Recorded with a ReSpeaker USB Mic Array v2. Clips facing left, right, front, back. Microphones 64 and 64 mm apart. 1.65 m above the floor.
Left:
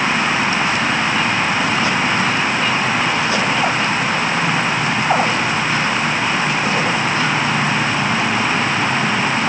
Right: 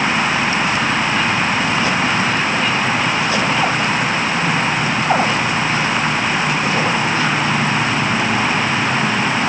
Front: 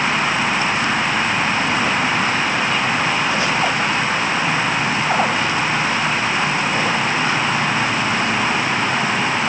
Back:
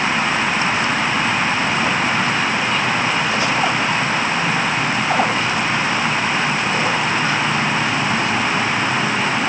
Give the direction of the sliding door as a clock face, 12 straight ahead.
I don't hear a sliding door.